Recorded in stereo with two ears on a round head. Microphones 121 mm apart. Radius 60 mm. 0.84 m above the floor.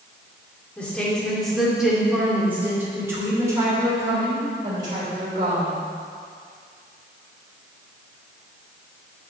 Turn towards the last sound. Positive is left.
turn(degrees=-40)  # may be behind; listen again after turning